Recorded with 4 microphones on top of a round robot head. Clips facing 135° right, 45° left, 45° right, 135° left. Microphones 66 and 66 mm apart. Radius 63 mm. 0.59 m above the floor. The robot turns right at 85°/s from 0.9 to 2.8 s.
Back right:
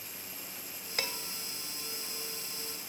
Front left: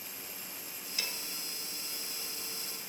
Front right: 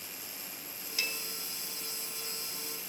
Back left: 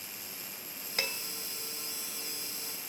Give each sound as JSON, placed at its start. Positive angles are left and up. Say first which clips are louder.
{"t": 1.0, "sound": "dishes clattering", "louder": "back right 4 dB, back left 2 dB", "azimuth_deg": 180, "distance_m": 2.0}